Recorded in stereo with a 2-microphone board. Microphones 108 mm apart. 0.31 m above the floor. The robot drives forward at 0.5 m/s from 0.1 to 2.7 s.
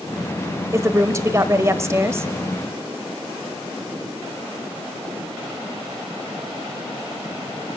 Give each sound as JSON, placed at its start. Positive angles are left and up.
{"t": 0.7, "sound": "a woman speaking", "side_deg": -25, "distance_m": 1.0}